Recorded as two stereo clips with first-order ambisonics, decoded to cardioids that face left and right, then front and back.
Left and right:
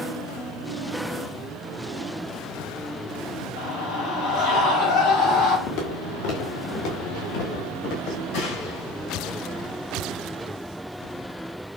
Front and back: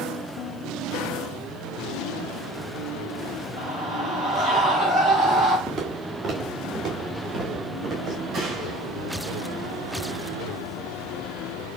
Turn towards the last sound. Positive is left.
turn(degrees=110)